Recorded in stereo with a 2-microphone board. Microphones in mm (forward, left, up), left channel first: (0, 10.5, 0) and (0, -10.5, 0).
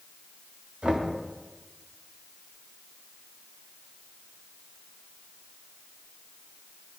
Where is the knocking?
65° right (ahead or behind), 1.5 m.